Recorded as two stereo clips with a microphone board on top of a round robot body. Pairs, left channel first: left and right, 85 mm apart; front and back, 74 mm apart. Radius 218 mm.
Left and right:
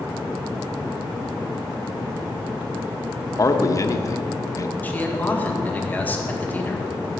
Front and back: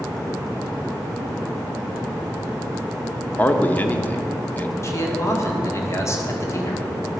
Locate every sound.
3.4 s a man speaking: 60° left, 1.0 m
4.8 s a man speaking: 30° left, 1.9 m